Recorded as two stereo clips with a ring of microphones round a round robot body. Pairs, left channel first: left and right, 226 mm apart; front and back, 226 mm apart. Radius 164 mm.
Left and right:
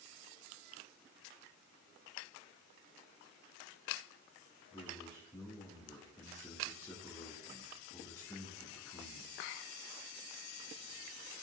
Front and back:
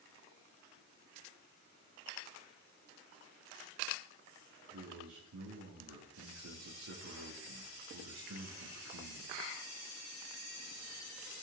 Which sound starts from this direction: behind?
A man speaking, at 4.7 s.